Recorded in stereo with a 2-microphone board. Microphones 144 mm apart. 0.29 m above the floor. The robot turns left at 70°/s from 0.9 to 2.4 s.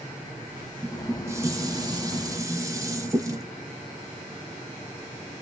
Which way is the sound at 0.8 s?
10° right (ahead or behind).